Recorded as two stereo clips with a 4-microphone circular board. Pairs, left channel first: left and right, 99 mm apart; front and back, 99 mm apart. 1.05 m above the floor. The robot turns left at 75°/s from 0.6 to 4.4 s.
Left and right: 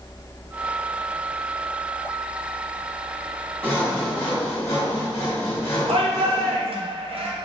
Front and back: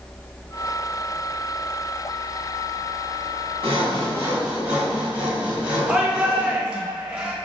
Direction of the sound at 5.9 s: 100° right.